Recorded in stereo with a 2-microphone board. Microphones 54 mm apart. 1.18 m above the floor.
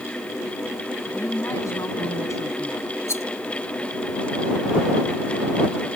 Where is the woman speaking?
60° left (ahead or behind); by 3.0 s 65° left (ahead or behind).